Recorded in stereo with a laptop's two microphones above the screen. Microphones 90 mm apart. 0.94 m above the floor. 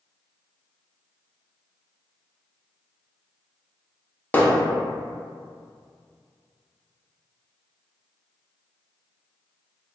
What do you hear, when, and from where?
4.3 s hammering: 20° left (ahead or behind), 0.6 m